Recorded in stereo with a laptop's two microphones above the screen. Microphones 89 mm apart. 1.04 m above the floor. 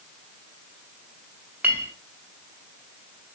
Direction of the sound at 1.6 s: 20° right (ahead or behind).